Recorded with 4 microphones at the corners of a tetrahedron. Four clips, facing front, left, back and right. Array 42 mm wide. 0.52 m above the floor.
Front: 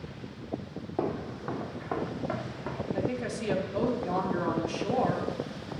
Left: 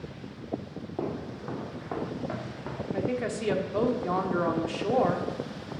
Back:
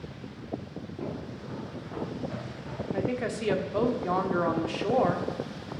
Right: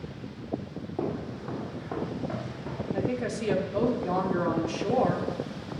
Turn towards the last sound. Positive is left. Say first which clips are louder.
# even, back 4 dB
turn(degrees=145)